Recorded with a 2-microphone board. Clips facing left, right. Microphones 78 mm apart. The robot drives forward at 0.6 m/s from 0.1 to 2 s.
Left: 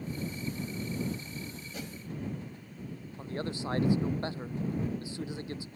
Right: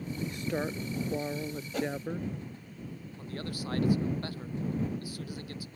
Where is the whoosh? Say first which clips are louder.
Right 12 dB; 40° right (ahead or behind); by 1.9 s 35° right (ahead or behind).